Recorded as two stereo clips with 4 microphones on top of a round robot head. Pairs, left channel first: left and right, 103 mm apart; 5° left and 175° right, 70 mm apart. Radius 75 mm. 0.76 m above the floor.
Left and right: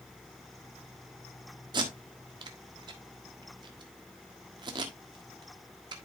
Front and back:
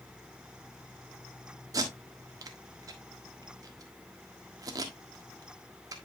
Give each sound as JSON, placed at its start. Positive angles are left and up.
{"t": 1.7, "sound": "tape being pulled", "azimuth_deg": -135, "distance_m": 1.5}